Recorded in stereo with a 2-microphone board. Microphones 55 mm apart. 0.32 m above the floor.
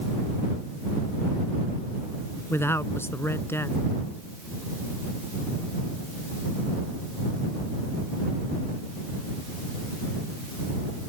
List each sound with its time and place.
2.5 s a man speaking: 50° left (ahead or behind)